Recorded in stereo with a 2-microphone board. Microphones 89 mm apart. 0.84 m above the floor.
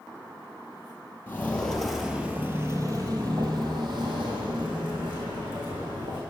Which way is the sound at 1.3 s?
25° left (ahead or behind).